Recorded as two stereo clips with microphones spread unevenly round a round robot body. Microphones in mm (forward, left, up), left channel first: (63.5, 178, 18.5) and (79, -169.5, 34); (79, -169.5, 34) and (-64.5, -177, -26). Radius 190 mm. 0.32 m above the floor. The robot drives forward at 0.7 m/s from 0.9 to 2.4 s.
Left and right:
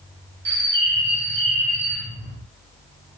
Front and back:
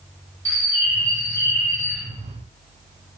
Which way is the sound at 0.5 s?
55° right.